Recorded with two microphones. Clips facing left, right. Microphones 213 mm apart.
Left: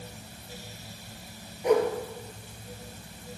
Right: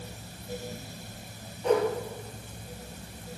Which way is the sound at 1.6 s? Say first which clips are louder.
Left 2 dB; 10° left (ahead or behind).